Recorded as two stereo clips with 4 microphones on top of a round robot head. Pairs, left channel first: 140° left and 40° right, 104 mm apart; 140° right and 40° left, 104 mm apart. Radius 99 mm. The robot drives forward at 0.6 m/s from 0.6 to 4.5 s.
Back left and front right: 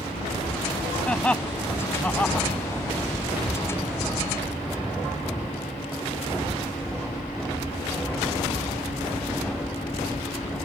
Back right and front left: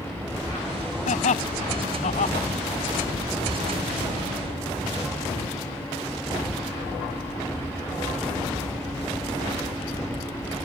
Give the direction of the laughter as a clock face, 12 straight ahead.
5 o'clock.